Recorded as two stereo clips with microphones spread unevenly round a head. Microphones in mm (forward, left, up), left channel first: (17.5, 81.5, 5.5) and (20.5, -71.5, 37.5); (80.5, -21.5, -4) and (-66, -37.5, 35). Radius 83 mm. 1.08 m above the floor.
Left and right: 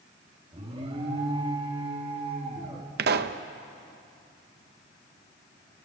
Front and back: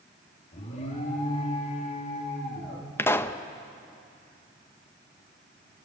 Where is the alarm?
35° right, 3.5 m.